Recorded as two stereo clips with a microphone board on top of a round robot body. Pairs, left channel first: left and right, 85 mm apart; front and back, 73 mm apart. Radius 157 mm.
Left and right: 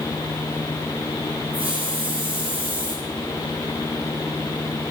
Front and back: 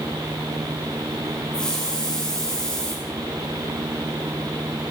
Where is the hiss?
80° right, 2 m.